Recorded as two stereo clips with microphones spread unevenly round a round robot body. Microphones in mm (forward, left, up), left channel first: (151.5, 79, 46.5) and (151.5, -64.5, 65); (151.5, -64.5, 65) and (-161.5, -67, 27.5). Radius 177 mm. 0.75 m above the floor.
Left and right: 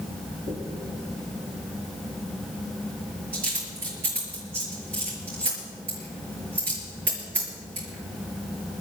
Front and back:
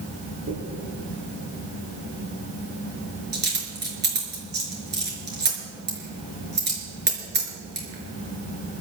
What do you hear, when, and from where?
0.5 s a dropped coin: 125° right, 4.5 m